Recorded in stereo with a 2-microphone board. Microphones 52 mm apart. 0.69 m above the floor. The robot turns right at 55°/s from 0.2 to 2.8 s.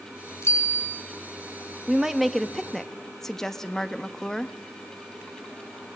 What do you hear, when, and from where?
0.4 s a bicycle bell: 120° left, 4.5 m; by 1.0 s 150° left, 4.5 m
1.9 s a woman speaking: 10° right (ahead or behind), 0.9 m; by 4.5 s 5° left (ahead or behind), 0.9 m